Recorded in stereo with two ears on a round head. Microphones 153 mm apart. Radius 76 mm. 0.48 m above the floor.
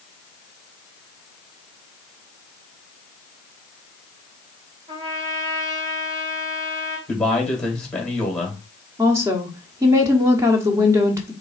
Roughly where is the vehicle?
I don't hear a vehicle.